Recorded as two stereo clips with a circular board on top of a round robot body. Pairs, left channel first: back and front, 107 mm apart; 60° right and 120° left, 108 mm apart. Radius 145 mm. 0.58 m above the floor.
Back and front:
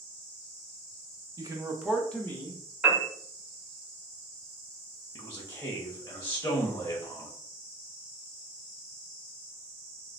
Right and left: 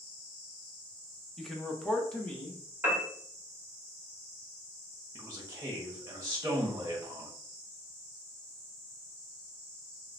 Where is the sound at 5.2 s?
145° left, 1.0 m.